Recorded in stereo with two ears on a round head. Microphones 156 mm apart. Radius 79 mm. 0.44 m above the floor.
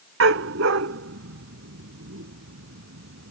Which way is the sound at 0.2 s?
85° right.